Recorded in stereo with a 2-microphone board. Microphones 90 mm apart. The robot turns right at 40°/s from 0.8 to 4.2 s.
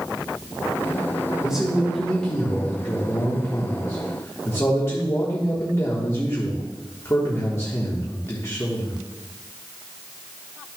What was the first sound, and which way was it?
A man speaking, 15° right.